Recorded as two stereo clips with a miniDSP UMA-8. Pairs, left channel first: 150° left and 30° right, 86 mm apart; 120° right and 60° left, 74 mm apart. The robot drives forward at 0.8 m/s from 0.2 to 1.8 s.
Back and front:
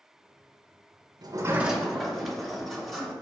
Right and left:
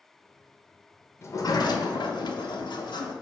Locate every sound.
1.2 s a sliding door: 65° right, 0.5 m; by 3.1 s 120° right, 0.5 m